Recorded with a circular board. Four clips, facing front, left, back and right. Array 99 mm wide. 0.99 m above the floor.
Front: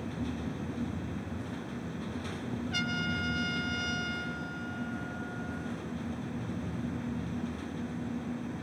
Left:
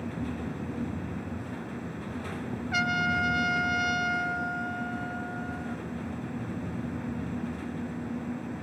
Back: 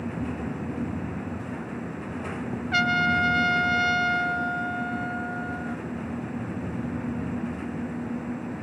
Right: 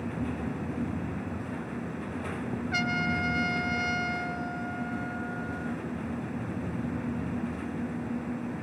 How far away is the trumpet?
About 0.7 m.